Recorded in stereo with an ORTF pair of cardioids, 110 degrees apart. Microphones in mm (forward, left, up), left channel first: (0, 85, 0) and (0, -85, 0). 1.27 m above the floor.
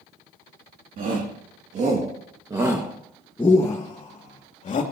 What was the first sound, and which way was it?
A shout, 60° right.